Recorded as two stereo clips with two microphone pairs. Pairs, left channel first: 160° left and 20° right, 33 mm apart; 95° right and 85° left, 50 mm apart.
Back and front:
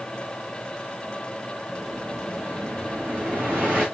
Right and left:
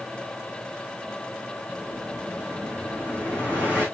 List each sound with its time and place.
1.7 s an explosion: 40° right, 4.5 m